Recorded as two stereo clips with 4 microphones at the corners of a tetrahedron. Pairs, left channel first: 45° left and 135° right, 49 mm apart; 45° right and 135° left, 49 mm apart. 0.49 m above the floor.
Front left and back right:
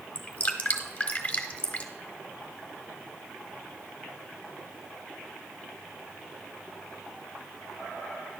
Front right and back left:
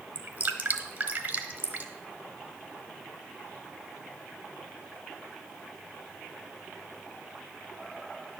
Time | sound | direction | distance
0.1 | dripping | 100° left | 1.1 m